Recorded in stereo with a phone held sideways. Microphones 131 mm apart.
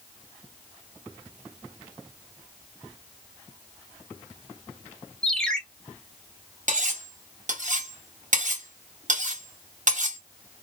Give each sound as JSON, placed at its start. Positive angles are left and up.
{"t": 5.2, "sound": "a ringtone", "side_deg": 5, "distance_m": 0.8}
{"t": 6.7, "sound": "cutlery clinking", "side_deg": -65, "distance_m": 0.8}